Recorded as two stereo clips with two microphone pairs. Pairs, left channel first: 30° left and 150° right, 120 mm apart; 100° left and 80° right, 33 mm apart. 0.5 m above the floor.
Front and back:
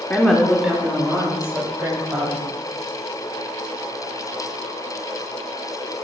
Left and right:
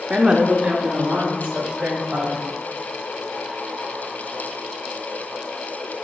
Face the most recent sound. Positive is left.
turn(degrees=-90)